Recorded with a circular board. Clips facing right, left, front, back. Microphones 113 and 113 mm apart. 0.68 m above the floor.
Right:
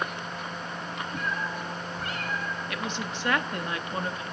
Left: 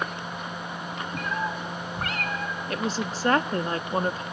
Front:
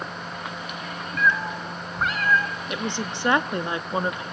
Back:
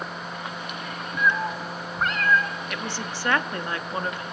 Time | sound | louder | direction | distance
1.2 | a cat meowing | left 4 dB, even | 110° left | 1.8 m
2.7 | a woman speaking | left 4 dB, front 3 dB | 60° left | 0.8 m